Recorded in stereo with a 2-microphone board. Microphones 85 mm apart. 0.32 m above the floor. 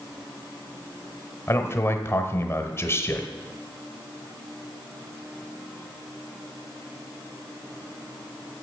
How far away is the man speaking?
About 1.1 m.